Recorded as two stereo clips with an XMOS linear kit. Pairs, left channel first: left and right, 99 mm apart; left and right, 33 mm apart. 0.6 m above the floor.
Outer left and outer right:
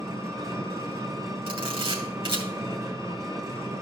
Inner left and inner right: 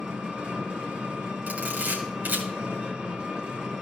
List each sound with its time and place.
0.0 s an engine running: 35° right (ahead or behind), 1.3 m
1.5 s a camera shutter: 65° right (ahead or behind), 2.5 m